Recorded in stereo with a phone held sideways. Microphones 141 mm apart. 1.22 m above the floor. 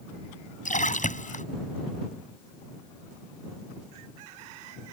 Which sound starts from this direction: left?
A splash, at 0.7 s.